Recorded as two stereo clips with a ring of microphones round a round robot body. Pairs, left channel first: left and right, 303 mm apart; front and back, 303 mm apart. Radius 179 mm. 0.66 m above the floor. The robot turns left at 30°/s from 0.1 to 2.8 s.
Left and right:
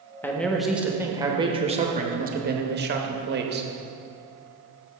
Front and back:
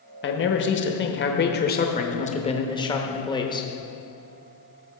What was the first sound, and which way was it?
A man speaking, 10° left.